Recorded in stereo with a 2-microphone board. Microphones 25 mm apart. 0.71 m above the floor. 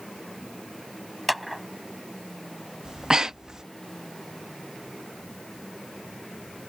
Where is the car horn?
No car horn in this recording.